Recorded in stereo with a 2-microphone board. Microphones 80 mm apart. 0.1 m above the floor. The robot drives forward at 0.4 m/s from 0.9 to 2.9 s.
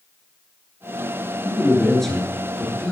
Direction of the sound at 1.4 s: 5° left (ahead or behind).